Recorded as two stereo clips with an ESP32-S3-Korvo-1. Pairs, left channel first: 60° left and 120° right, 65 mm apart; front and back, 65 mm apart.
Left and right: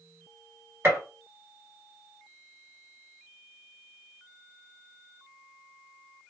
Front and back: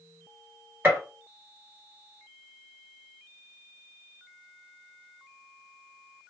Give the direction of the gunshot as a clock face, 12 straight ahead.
5 o'clock.